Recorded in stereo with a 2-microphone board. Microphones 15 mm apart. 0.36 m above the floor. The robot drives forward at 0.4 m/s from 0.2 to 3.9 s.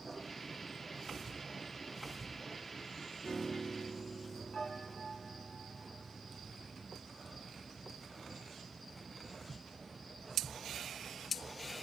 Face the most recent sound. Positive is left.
turn(degrees=75)  # may be behind; listen again after turning